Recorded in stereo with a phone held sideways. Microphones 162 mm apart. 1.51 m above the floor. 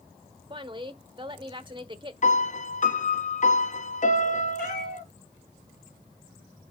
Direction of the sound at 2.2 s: 50° left (ahead or behind).